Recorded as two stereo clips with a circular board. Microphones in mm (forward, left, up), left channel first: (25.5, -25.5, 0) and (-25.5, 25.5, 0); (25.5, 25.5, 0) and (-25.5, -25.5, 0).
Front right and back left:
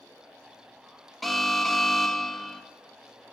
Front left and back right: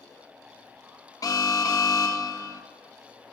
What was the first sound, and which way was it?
An alarm, 45° left.